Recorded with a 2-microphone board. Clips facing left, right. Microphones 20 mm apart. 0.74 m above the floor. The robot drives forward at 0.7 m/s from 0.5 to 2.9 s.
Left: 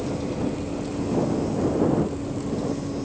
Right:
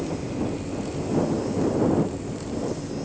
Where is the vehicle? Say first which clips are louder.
Left 1 dB; 45° left (ahead or behind).